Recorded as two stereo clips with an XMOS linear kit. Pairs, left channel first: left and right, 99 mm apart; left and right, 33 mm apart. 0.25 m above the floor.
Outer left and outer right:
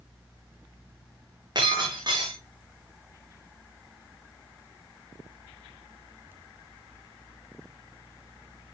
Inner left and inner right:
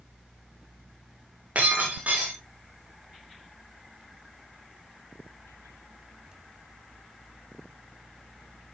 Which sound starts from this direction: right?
Breaking glass, at 1.6 s.